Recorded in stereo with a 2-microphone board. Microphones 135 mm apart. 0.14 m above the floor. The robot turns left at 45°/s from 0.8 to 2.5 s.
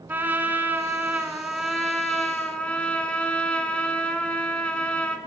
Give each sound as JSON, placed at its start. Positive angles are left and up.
{"t": 0.1, "sound": "a trumpet", "side_deg": -15, "distance_m": 0.6}